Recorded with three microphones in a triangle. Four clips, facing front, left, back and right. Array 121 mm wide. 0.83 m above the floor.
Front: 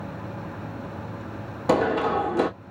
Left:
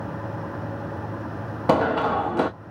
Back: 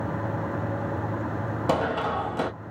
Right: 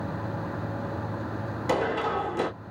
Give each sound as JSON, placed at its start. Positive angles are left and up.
{"t": 1.7, "sound": "running footsteps", "azimuth_deg": 80, "distance_m": 1.8}